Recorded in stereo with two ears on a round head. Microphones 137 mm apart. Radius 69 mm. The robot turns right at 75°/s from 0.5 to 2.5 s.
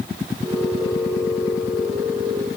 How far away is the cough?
I don't hear a cough.